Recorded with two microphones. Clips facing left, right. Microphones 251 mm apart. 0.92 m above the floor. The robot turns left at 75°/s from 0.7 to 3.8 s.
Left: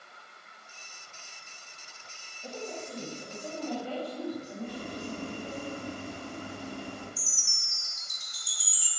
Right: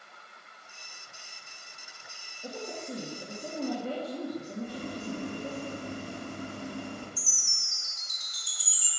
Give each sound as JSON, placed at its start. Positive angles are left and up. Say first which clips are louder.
{"t": 2.4, "sound": "a woman speaking", "louder": "right 1 dB", "azimuth_deg": -25, "distance_m": 1.7}
{"t": 4.6, "sound": "boiling", "louder": "right 1 dB", "side_deg": -45, "distance_m": 4.0}
{"t": 7.2, "sound": "a chime", "louder": "even", "side_deg": -40, "distance_m": 3.5}